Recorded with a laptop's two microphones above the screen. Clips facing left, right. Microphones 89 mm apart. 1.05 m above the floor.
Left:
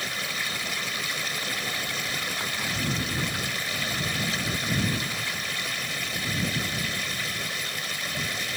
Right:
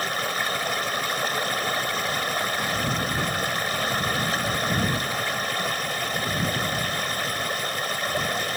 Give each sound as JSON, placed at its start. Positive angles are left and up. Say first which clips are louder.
{"t": 0.0, "sound": "running water", "louder": "right 6 dB", "side_deg": -50}